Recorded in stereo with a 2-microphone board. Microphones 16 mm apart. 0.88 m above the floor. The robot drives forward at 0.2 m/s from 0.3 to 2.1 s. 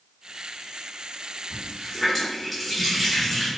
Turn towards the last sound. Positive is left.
turn(degrees=5)  # may be behind; listen again after turning